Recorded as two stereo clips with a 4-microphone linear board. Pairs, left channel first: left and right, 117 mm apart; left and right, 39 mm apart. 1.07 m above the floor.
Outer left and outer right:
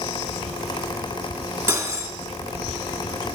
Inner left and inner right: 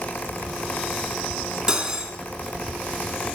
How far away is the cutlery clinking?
About 1.6 m.